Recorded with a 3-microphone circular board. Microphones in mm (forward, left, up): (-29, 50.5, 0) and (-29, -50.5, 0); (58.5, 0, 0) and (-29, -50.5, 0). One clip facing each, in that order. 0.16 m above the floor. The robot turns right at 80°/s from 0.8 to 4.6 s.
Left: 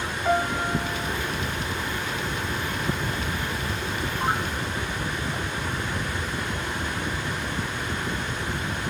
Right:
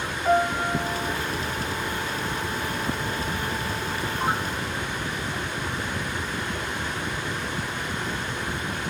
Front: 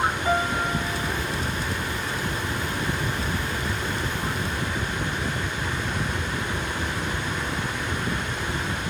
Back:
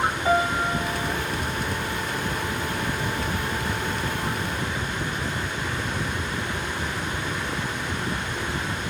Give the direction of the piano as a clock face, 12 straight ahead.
6 o'clock.